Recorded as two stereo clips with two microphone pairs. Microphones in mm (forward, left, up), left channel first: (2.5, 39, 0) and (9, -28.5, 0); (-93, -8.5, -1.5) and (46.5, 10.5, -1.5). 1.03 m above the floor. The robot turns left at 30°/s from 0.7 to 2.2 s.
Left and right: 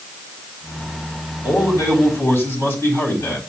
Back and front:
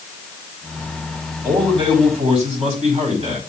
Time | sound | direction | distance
1.4 | a man speaking | 70° left | 4.5 m